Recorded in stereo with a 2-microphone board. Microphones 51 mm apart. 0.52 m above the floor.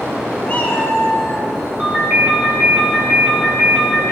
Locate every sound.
0.5 s a cat meowing: 30° left (ahead or behind), 1.8 m
1.8 s a ringtone: 25° right (ahead or behind), 4 m